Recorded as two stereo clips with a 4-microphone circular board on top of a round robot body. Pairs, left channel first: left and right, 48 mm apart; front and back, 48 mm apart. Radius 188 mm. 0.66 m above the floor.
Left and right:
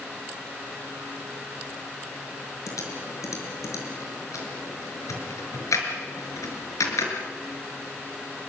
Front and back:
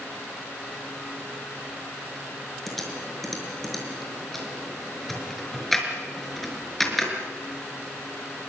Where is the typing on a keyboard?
85° left, 5 m.